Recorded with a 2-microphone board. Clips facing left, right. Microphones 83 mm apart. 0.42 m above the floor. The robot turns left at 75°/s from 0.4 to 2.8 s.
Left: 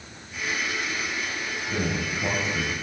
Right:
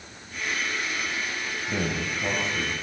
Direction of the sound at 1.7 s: 145° right.